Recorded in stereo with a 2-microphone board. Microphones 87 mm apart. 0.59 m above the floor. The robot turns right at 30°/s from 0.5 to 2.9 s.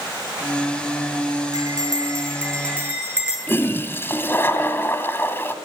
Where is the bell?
55° right, 8 m; by 3.4 s 15° right, 8 m.